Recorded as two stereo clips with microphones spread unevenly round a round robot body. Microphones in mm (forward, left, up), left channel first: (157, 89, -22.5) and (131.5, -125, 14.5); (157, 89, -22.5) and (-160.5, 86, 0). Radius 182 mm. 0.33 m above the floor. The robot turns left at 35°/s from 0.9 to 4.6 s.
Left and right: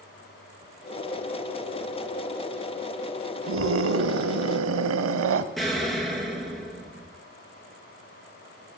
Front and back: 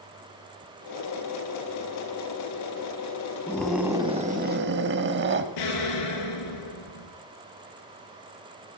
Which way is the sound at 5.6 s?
5° right.